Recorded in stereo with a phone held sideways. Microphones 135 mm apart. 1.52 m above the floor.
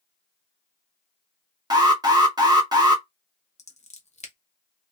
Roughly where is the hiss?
I don't hear a hiss.